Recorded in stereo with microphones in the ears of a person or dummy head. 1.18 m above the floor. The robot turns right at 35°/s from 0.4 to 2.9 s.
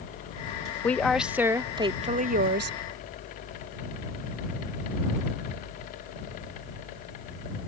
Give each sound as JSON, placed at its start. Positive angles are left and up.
{"t": 0.8, "sound": "a woman speaking", "azimuth_deg": 170}